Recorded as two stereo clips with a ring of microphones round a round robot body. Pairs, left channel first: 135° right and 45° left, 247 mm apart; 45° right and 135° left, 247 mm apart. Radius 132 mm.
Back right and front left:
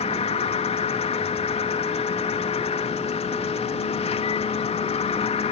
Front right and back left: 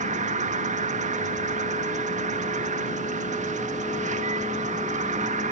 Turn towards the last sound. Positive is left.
turn(degrees=175)